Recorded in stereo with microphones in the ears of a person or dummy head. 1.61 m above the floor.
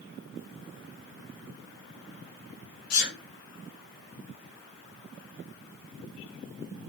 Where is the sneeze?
55° left (ahead or behind), 3 m.